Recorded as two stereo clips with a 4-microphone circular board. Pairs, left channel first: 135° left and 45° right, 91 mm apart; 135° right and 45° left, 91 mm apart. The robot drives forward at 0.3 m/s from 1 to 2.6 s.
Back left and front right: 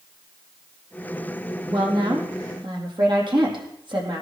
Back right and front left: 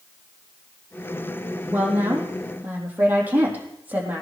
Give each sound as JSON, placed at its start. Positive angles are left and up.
{"t": 1.7, "sound": "a woman speaking", "azimuth_deg": -20, "distance_m": 4.0}